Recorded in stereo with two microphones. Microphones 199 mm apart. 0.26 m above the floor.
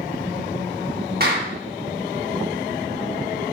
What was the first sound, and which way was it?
A clap, 55° right (ahead or behind).